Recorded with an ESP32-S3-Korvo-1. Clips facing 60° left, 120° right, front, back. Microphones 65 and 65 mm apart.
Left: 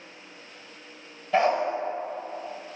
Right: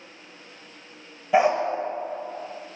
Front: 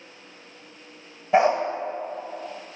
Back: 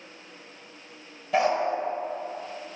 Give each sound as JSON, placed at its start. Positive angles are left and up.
{"t": 1.3, "sound": "a dog barking", "azimuth_deg": -50, "distance_m": 0.7}